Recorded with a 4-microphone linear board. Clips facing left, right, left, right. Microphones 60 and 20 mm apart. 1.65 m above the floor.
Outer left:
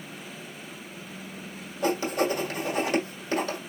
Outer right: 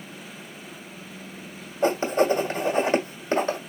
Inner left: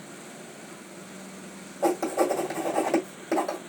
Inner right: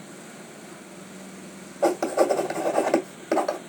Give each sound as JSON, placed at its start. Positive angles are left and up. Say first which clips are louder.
{"t": 1.8, "sound": "writing", "louder": "outer right 4 dB, inner right 3 dB", "side_deg": -30, "distance_m": 1.5}